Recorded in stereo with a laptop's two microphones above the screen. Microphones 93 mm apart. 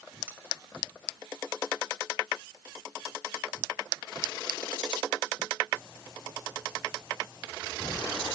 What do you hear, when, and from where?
0.3 s cutlery clinking: 15° right (ahead or behind), 2.5 m